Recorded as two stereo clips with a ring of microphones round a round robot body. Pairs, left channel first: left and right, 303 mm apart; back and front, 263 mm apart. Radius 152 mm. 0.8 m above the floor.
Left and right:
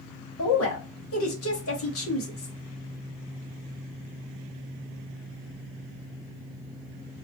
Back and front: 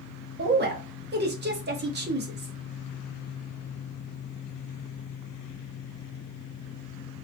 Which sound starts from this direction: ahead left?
A woman speaking, at 0.4 s.